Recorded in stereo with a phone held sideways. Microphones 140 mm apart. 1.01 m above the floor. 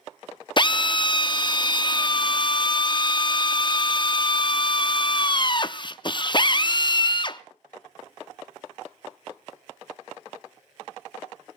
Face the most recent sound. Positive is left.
turn(degrees=35)  # may be behind; listen again after turning